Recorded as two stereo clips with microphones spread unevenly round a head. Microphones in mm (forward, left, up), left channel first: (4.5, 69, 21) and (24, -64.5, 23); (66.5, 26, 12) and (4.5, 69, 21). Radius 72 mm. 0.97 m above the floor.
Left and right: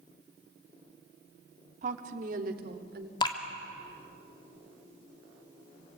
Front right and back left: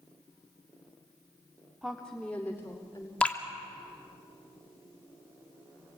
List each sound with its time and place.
1.8 s a woman speaking: 125° right, 2 m; by 3.1 s 105° right, 3 m
3.2 s dripping: 40° left, 2.5 m